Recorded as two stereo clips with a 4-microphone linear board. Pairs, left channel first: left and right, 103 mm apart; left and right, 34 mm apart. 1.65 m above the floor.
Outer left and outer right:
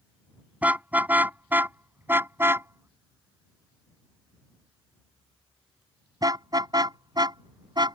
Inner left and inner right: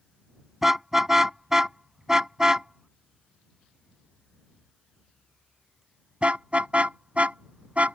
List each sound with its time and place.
0.6 s a car horn: 15° right (ahead or behind); by 8.0 s 45° right (ahead or behind)